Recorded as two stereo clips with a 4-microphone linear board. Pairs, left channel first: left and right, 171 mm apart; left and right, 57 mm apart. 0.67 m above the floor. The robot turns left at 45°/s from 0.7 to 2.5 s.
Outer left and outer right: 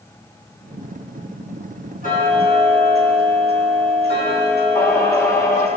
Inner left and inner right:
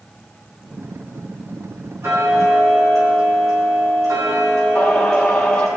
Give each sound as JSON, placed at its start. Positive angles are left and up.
{"t": 2.0, "sound": "ticking", "side_deg": -50, "distance_m": 4.0}
{"t": 4.8, "sound": "singing", "side_deg": 20, "distance_m": 2.0}